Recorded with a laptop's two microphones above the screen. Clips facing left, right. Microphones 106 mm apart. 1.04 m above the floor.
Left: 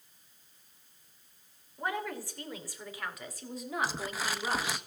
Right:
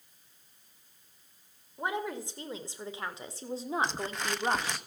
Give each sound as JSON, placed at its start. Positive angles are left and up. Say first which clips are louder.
{"t": 1.8, "sound": "a woman speaking", "louder": "right 1 dB", "side_deg": -20, "distance_m": 3.5}
{"t": 3.8, "sound": "crumpling", "louder": "right 1 dB", "side_deg": 5, "distance_m": 0.6}